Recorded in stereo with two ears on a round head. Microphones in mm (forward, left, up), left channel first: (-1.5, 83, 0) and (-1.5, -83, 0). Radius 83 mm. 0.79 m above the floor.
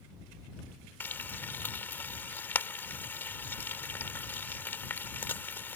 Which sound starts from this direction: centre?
Frying, at 1.0 s.